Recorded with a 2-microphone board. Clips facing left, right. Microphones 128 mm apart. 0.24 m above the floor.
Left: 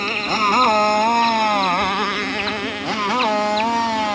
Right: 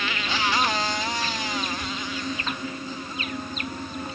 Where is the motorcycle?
40° left (ahead or behind); by 4.2 s 90° left.